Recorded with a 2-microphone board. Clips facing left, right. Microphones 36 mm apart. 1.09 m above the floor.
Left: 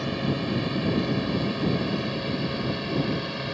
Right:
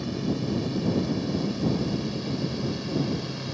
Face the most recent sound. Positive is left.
turn(degrees=30)  # may be behind; listen again after turning